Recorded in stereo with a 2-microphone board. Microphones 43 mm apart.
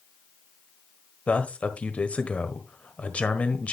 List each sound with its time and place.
1.3 s a man speaking: 30° left (ahead or behind), 1.3 m